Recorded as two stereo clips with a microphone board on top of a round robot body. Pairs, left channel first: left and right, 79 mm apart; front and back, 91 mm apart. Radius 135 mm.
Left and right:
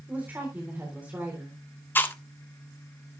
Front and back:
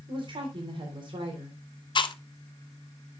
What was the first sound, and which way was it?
A woman speaking, 160° right.